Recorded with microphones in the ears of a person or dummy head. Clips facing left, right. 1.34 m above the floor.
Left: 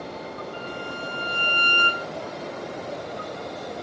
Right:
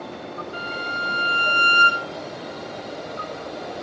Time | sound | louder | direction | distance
0.5 | a violin | right 1 dB | 25° right (ahead or behind) | 6.5 m